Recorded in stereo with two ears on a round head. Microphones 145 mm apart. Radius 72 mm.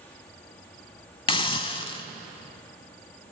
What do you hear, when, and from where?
1.3 s a hiss: 30° left (ahead or behind), 0.6 m